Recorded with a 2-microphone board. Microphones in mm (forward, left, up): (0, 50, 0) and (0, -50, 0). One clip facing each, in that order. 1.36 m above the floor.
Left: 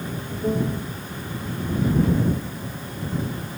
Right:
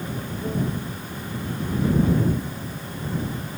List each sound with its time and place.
0.4 s a piano: 25° left (ahead or behind)